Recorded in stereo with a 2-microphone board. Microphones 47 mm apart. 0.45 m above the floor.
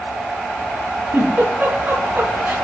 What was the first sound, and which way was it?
A giggle, 40° right (ahead or behind).